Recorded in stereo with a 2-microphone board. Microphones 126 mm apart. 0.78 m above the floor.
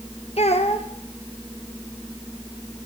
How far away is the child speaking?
About 1.3 m.